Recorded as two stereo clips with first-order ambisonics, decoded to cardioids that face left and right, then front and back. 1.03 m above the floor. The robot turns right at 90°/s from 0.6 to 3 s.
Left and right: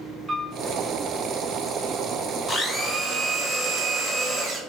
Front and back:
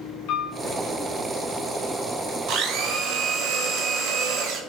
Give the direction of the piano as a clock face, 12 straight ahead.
12 o'clock.